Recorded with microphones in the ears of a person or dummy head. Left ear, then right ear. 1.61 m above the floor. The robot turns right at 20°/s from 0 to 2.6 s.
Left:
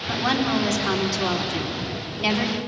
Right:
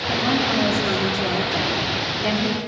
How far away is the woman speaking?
About 4 m.